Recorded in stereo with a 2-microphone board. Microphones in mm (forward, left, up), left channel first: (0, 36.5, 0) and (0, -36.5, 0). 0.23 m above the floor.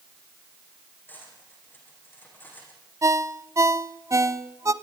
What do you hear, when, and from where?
1.1 s cutlery clinking: 25° left (ahead or behind), 9 m
3.0 s a ringtone: 45° right (ahead or behind), 1.0 m